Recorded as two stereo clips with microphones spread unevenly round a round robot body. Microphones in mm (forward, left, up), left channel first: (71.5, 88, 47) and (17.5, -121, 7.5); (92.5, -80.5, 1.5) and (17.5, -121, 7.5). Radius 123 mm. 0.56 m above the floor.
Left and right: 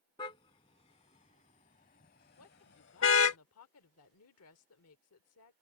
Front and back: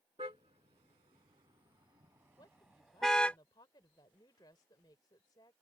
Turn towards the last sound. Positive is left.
turn(degrees=80)